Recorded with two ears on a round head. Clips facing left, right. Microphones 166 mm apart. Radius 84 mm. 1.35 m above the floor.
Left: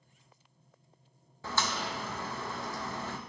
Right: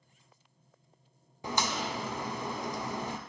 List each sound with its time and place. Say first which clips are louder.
1.4 s a crack: right 2 dB; 15° right (ahead or behind), 0.6 m